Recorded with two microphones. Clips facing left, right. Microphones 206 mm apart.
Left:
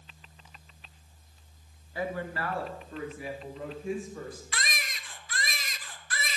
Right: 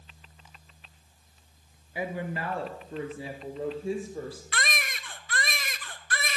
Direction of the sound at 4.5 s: 60° right (ahead or behind).